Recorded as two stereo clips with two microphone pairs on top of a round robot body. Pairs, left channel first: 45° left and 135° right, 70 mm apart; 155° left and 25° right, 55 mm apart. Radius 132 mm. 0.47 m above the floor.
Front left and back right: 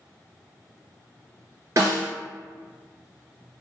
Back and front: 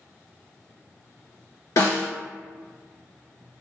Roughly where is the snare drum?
Behind.